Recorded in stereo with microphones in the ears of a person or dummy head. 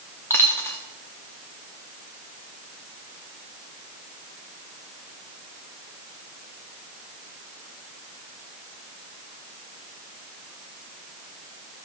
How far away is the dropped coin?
About 1.3 m.